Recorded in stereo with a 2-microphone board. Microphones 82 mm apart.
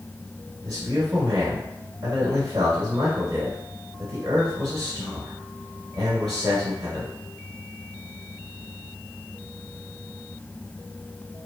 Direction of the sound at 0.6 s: 50° right (ahead or behind).